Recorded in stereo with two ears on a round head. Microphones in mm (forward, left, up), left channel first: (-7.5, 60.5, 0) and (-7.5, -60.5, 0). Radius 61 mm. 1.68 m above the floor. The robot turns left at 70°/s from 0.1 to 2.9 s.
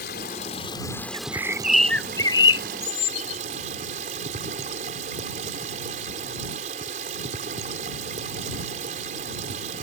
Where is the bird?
135° right; by 3.4 s 100° left.